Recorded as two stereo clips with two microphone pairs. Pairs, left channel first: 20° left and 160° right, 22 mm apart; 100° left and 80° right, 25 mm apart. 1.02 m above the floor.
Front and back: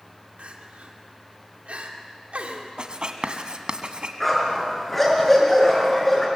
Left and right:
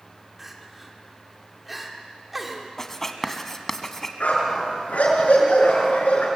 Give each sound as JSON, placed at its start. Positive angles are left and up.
{"t": 0.4, "sound": "crying", "azimuth_deg": -165, "distance_m": 1.9}
{"t": 2.8, "sound": "writing", "azimuth_deg": 170, "distance_m": 1.5}
{"t": 4.2, "sound": "a dog barking", "azimuth_deg": 100, "distance_m": 5.5}